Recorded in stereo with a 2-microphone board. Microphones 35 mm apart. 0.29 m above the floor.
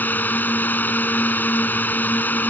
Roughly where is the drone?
Left.